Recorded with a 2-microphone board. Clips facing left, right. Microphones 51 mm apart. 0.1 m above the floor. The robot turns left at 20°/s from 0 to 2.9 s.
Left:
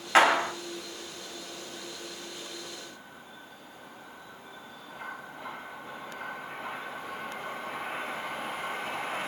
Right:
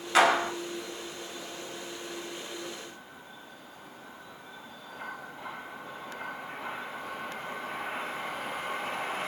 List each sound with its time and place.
0.1 s a clap: 30° left (ahead or behind), 1.0 m